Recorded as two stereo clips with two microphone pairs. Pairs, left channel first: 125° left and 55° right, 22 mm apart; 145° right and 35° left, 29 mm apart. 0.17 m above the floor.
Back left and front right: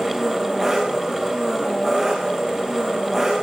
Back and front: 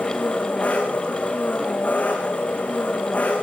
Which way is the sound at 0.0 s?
120° right.